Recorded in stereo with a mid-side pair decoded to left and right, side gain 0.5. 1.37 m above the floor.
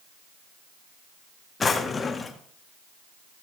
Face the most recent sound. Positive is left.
turn(degrees=30)